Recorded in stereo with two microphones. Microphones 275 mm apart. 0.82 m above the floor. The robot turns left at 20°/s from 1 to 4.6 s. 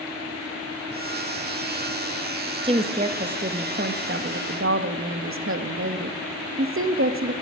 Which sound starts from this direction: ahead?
A woman speaking, at 2.6 s.